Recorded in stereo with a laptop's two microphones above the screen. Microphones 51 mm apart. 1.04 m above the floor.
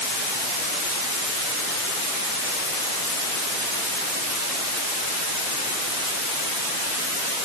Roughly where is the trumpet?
No trumpet in this recording.